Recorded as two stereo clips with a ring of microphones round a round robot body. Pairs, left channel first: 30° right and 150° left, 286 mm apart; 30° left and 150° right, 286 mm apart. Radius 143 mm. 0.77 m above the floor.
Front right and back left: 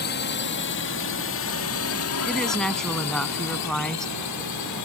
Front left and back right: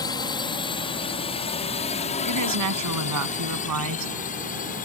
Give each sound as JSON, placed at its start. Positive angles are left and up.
{"t": 0.0, "sound": "a drone", "azimuth_deg": -35}
{"t": 2.2, "sound": "a woman speaking", "azimuth_deg": -120}